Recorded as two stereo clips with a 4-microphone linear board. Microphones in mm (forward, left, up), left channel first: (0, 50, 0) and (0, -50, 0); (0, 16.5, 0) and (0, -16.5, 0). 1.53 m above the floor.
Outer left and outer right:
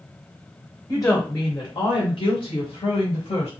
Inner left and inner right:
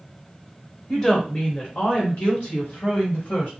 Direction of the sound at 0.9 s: 25° left (ahead or behind).